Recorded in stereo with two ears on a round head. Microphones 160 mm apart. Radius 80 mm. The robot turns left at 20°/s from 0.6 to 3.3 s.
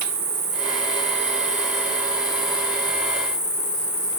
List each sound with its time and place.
0.0 s an insect: 145° right, 0.9 m; by 4.2 s 160° left, 0.9 m